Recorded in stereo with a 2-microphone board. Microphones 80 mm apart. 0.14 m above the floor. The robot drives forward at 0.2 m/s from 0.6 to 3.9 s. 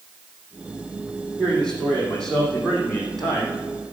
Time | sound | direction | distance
1.4 | a man speaking | 10° left (ahead or behind) | 5.5 m